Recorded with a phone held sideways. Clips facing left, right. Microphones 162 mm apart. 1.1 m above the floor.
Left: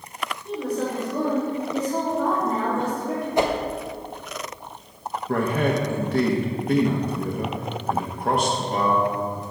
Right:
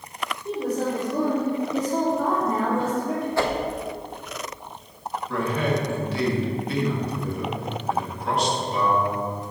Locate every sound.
0.5 s a woman speaking: 30° right (ahead or behind), 3 m; by 3.3 s centre (ahead or behind), 3 m
3.4 s a whoosh: 20° left (ahead or behind), 0.7 m
5.3 s a man speaking: 50° left (ahead or behind), 1.3 m